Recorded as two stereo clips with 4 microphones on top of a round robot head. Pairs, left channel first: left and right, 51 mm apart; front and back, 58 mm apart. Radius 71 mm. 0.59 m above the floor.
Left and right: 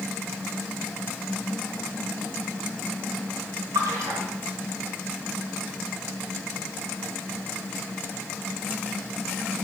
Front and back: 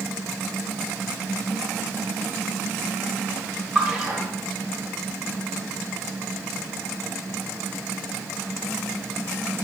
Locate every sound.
3.8 s a splash: 100° right, 1.4 m